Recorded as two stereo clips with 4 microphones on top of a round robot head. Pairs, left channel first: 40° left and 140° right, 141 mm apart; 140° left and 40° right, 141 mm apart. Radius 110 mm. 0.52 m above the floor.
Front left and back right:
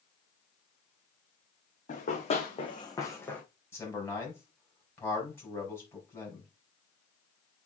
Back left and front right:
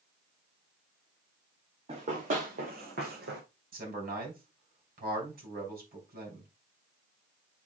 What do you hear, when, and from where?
1.9 s running footsteps: 5° left, 2.5 m; by 3.4 s 40° right, 1.9 m
3.7 s a man speaking: 35° right, 4 m